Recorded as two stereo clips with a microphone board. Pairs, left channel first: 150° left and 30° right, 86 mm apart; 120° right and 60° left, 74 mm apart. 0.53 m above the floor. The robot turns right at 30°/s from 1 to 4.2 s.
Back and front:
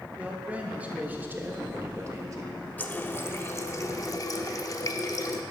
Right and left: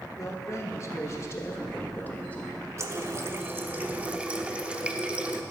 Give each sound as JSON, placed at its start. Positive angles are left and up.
{"t": 0.2, "sound": "a man speaking", "azimuth_deg": -95, "distance_m": 1.2}
{"t": 2.8, "sound": "a running tap", "azimuth_deg": 85, "distance_m": 0.7}